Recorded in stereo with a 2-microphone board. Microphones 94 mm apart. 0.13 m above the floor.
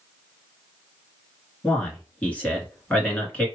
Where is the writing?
I don't hear writing.